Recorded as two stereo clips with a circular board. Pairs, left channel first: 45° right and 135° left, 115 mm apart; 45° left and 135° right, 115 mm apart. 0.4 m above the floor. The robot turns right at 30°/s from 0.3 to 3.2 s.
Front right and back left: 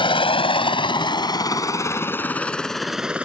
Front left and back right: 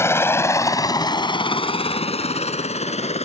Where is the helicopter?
15° right; by 3.2 s 55° left.